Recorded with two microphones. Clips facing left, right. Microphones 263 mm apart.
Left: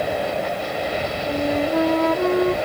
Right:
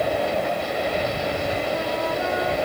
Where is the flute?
70° left (ahead or behind).